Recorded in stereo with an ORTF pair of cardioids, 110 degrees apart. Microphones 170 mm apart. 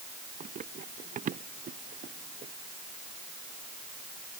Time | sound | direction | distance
0.4 | running footsteps | 45° right | ?